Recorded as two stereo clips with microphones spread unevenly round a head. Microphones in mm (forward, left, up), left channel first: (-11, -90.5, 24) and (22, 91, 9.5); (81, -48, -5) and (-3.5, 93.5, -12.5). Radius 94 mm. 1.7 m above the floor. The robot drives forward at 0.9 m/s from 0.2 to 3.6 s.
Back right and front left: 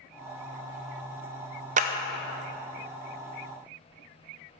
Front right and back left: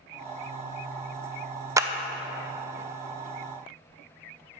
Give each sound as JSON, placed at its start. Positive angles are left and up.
{"t": 1.8, "sound": "a clap", "azimuth_deg": 55, "distance_m": 0.6}